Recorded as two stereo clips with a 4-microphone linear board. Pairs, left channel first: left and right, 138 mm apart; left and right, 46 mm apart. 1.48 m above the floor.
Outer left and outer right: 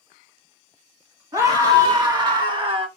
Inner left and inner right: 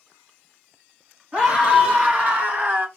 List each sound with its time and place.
1.3 s a scream: 25° right (ahead or behind), 3 m; by 2.9 s 40° right (ahead or behind), 1.4 m